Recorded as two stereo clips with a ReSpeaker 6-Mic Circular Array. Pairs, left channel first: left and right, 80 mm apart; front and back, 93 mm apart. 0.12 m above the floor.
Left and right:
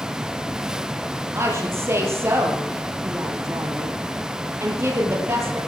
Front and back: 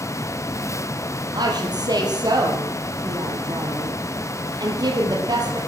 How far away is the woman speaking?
About 3.5 m.